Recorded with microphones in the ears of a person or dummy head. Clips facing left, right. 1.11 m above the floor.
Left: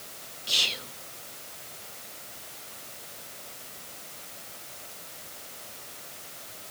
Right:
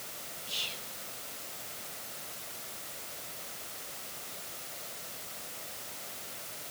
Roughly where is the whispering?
Left.